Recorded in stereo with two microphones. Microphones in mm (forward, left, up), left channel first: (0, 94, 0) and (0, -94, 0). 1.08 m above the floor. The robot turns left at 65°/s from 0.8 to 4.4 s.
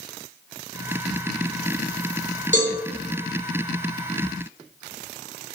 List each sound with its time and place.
2.5 s a cowbell: 80° right, 2.5 m; by 2.8 s 65° right (ahead or behind), 2.5 m